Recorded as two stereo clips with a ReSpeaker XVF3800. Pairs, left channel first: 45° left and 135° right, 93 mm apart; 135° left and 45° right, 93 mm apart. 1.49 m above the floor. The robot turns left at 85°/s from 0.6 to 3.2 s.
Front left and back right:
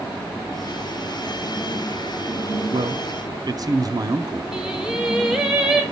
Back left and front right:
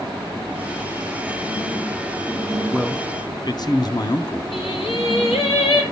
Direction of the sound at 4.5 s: 140° left.